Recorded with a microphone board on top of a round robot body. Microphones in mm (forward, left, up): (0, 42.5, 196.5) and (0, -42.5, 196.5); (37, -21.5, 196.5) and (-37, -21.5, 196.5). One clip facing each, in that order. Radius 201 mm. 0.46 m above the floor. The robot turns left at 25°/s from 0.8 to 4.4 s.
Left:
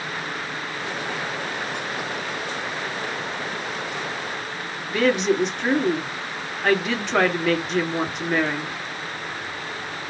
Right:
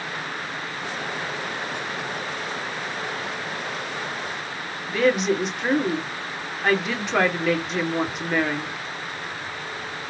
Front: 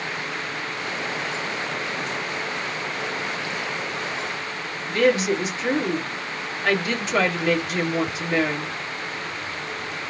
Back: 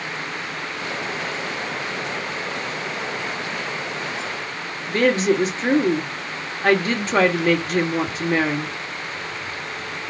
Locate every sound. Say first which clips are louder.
4.9 s a woman speaking: even, back 2 dB; 175° right, 1.5 m